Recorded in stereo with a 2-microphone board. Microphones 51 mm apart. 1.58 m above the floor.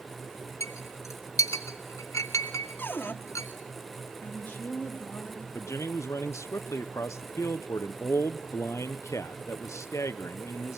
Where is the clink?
70° left (ahead or behind), 2.5 m.